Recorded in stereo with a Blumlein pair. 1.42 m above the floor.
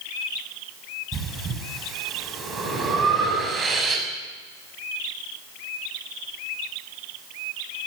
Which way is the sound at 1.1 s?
20° right.